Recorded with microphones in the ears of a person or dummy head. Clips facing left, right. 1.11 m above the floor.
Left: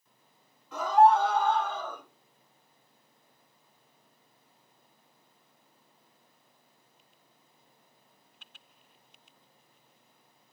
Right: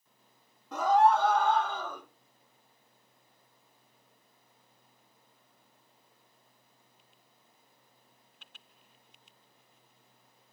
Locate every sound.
0.7 s a scream: 40° right (ahead or behind), 2 m; by 2.0 s 60° right (ahead or behind), 2.5 m